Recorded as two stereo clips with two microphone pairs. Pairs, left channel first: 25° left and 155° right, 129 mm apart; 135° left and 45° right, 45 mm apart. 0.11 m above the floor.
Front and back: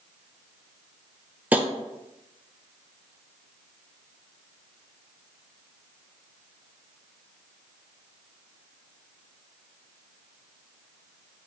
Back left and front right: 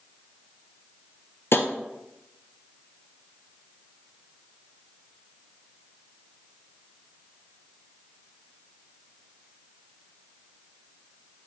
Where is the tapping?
135° left, 0.5 m.